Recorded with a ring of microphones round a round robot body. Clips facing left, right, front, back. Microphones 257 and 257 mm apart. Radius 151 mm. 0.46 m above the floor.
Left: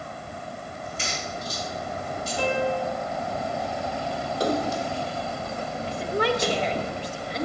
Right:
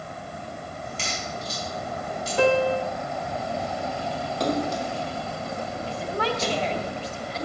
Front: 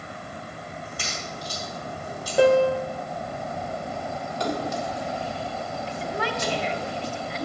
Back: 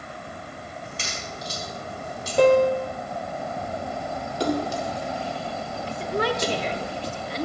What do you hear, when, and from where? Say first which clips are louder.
0.8 s a crack: left 1 dB, even; 115° right, 4 m
2.4 s a piano: right 5 dB, back 1 dB; 85° right, 1.0 m
4.4 s a splash: even, back 4 dB; 170° left, 1.3 m
5.9 s a woman speaking: left 4 dB, back 6 dB; 155° left, 1.0 m